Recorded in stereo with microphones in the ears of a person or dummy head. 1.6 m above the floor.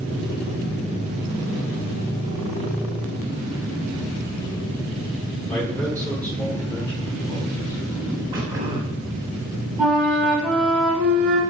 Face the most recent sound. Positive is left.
turn(degrees=-5)  # may be behind; listen again after turning